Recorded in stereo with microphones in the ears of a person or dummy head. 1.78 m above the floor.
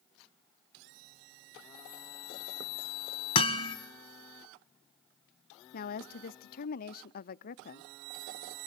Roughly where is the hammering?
Left.